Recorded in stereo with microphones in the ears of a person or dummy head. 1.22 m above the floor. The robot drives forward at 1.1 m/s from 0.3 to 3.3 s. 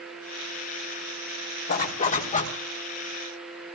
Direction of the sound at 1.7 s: 45° left (ahead or behind).